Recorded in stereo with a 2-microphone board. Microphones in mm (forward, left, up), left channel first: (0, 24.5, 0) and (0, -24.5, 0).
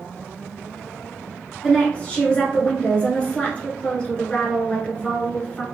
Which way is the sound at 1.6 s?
25° left (ahead or behind).